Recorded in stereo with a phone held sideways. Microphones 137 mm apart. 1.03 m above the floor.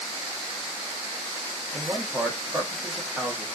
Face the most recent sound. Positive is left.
turn(degrees=-10)  # may be behind; listen again after turning